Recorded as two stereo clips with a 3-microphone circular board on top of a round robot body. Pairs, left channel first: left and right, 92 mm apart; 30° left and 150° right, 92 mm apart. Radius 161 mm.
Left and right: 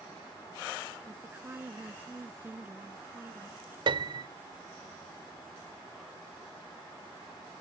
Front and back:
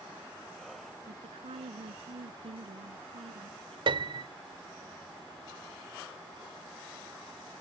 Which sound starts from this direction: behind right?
A piano, at 3.9 s.